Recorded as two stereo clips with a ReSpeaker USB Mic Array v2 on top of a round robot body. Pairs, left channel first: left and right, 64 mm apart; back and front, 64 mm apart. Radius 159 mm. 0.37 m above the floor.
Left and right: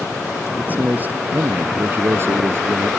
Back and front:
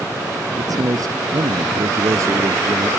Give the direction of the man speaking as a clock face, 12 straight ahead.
1 o'clock.